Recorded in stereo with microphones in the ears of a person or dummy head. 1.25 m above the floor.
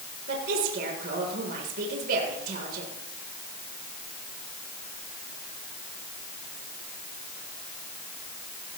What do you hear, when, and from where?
0.3 s a woman speaking: 45° right (ahead or behind), 4 m